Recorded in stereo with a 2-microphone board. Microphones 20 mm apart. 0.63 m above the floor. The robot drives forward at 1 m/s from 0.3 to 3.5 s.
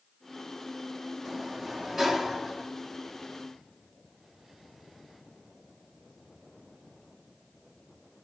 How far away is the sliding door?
About 1.2 m.